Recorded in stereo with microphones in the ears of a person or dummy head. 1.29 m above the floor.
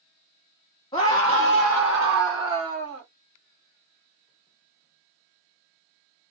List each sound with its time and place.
0.9 s a scream: 25° left (ahead or behind), 0.9 m; by 3.0 s 25° right (ahead or behind), 1.5 m